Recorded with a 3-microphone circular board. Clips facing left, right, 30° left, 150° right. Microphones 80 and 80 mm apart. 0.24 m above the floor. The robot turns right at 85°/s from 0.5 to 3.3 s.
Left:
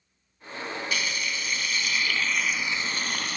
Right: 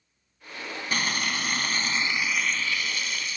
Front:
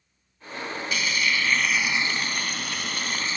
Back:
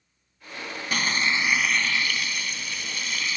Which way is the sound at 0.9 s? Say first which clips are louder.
Right 6 dB, back 2 dB; 125° right.